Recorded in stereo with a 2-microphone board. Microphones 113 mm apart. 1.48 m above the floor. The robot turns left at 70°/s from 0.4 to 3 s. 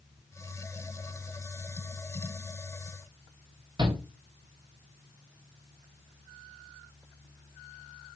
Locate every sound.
3.8 s a shout: 35° right (ahead or behind), 1.7 m